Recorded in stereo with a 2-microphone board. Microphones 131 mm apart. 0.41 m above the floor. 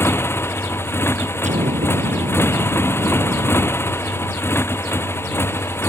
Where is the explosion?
65° right (ahead or behind).